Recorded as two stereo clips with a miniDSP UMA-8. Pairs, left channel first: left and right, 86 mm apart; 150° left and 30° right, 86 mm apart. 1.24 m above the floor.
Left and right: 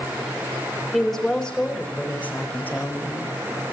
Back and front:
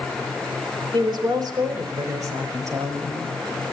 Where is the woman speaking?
Straight ahead, 4.5 m; by 3.4 s 25° left, 6 m.